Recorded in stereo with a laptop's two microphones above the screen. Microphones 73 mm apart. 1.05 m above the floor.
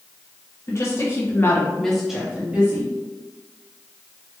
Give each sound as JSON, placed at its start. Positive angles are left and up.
{"t": 0.7, "sound": "a woman speaking", "side_deg": 40, "distance_m": 1.0}